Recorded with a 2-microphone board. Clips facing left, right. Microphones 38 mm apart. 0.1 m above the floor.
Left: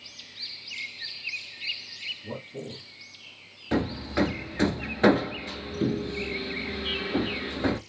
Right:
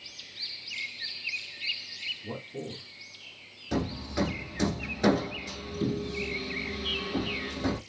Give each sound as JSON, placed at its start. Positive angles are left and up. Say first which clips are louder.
{"t": 2.2, "sound": "a man speaking", "louder": "left 1 dB", "side_deg": -5, "distance_m": 1.1}
{"t": 3.7, "sound": "hammering", "louder": "left 4 dB", "side_deg": 40, "distance_m": 0.6}